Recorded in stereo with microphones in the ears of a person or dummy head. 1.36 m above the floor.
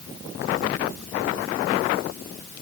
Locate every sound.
Only background noise.